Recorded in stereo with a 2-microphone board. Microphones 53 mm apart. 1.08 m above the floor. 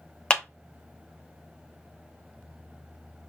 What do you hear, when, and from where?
0.3 s a clap: 20° left (ahead or behind), 0.7 m